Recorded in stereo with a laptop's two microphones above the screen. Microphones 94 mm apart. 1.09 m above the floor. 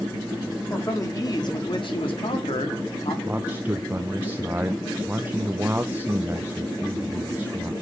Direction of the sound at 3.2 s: 20° right (ahead or behind).